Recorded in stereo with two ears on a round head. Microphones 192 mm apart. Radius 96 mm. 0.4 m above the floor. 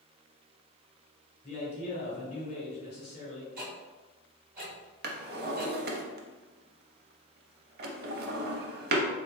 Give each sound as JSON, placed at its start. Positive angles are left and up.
{"t": 1.4, "sound": "a man speaking", "side_deg": 35, "distance_m": 1.6}
{"t": 3.6, "sound": "ticking", "side_deg": -40, "distance_m": 1.7}
{"t": 5.0, "sound": "a drawer", "side_deg": -50, "distance_m": 0.5}